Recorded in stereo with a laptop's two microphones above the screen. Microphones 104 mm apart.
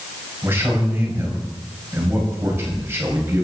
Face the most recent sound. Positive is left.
turn(degrees=-25)  # may be behind; listen again after turning